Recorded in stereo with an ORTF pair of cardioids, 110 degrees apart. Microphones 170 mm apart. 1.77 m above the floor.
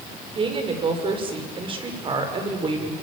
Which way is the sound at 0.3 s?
30° right.